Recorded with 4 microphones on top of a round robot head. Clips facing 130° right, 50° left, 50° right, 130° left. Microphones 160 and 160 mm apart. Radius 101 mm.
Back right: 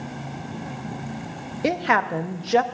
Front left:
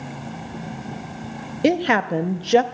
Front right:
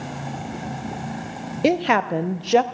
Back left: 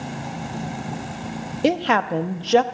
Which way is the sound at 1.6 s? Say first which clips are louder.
Front left 4 dB, front right 1 dB; 25° left.